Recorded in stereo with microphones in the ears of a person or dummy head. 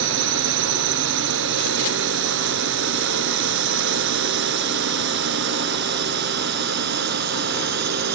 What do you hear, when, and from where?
0.0 s a drone: 70° right (ahead or behind); by 8.2 s 60° right (ahead or behind)